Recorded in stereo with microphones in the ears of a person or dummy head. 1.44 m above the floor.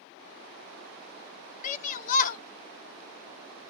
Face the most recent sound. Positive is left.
turn(degrees=50)  # may be behind; listen again after turning